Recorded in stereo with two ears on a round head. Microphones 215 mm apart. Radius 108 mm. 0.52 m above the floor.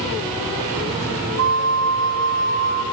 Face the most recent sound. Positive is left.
turn(degrees=-70)  # may be behind; listen again after turning